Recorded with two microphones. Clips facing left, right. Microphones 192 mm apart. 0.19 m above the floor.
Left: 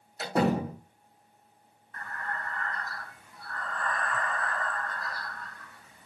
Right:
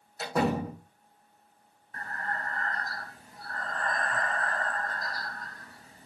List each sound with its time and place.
0.2 s a door slam: 25° left (ahead or behind), 5.5 m
1.9 s breathing: 35° right (ahead or behind), 0.6 m